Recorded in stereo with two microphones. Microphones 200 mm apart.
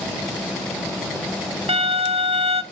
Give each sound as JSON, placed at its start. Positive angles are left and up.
{"t": 1.7, "sound": "a violin", "side_deg": -30, "distance_m": 0.5}